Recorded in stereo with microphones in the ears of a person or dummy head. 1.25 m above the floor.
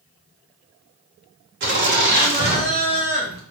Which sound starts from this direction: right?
Laughter, at 1.6 s.